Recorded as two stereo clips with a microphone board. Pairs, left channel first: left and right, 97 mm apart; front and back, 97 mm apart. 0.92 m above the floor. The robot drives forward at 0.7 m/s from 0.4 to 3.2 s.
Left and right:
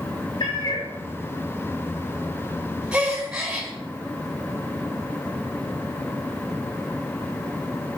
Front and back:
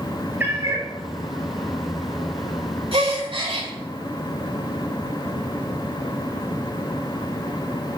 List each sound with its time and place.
0.4 s a cat meowing: 115° left, 1.1 m; by 0.9 s 130° left, 1.3 m
2.9 s a gasp: 170° right, 3.5 m